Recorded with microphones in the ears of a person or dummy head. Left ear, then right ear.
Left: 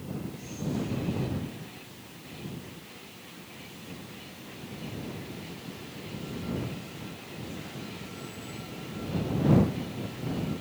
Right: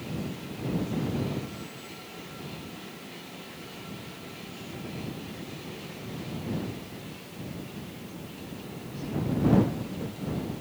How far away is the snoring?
No snoring in this recording.